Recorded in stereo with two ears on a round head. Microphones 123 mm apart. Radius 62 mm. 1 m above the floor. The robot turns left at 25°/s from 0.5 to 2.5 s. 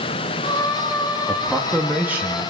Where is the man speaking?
5° left (ahead or behind), 2 m; by 2.4 s 20° right (ahead or behind), 2 m.